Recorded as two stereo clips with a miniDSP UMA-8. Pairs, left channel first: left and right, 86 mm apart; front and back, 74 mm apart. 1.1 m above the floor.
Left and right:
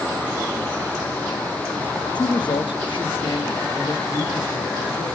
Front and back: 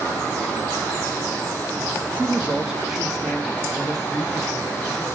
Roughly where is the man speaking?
Behind left.